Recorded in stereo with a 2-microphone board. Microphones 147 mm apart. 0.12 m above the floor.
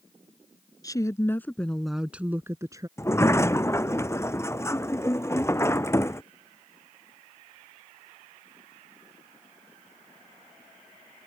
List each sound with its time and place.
0.8 s a woman speaking: 25° left (ahead or behind); by 2.9 s 25° right (ahead or behind)
3.0 s a sliding door: 20° left (ahead or behind)